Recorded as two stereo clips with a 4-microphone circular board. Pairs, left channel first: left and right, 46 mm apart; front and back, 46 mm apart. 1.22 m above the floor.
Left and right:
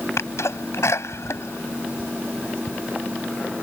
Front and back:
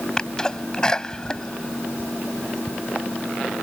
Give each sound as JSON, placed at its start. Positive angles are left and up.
{"t": 0.2, "sound": "a sneeze", "azimuth_deg": 75}